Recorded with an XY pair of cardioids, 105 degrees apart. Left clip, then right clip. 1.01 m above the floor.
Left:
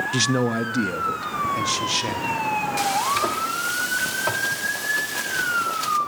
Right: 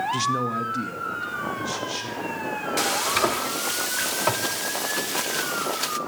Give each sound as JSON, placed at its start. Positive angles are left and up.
{"t": 0.1, "sound": "a man speaking", "azimuth_deg": 40, "distance_m": 0.5}
{"t": 2.8, "sound": "frying", "azimuth_deg": -25, "distance_m": 1.0}